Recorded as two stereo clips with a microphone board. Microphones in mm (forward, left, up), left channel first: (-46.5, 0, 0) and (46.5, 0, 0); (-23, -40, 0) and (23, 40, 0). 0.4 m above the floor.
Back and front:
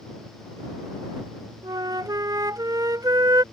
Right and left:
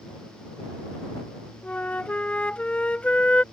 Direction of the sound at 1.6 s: 45° right.